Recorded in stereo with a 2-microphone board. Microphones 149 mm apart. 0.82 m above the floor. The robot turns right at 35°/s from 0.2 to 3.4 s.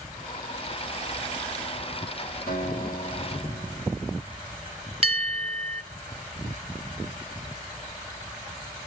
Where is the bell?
40° right (ahead or behind), 0.8 m.